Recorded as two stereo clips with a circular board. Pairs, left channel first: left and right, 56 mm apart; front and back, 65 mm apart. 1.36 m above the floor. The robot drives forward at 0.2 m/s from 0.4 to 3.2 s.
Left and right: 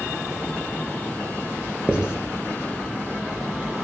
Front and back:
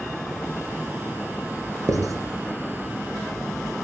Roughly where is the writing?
Behind.